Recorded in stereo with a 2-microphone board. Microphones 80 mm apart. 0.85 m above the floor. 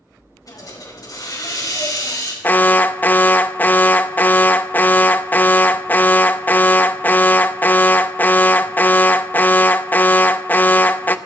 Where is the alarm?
25° left (ahead or behind), 0.6 m.